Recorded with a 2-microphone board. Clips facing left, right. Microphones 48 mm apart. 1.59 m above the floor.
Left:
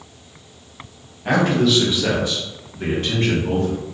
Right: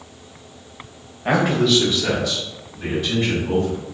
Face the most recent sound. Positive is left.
turn(degrees=60)  # may be behind; listen again after turning